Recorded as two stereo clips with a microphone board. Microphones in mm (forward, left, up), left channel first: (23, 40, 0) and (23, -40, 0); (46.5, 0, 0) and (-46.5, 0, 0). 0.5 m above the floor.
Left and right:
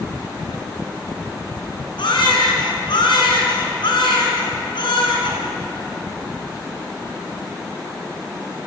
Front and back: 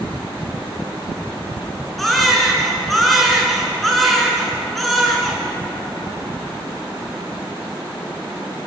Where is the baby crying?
90° left, 5 m.